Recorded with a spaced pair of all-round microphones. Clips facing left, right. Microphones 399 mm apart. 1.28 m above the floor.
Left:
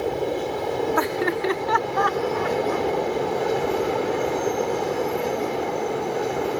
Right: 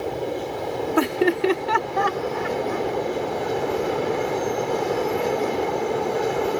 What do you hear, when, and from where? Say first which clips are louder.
1.0 s laughter: right 4 dB; 45° right (ahead or behind); by 2.9 s 40° right (ahead or behind)